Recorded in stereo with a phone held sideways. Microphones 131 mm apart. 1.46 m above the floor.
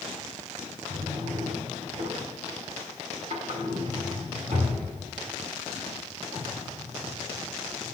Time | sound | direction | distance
0.9 | a drawer | 65° right (ahead or behind) | 2 m